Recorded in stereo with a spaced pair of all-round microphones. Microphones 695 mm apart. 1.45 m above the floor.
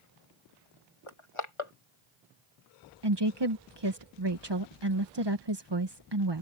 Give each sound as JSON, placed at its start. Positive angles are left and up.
{"t": 1.1, "sound": "crushing", "side_deg": 45}
{"t": 3.0, "sound": "a woman speaking", "side_deg": -40}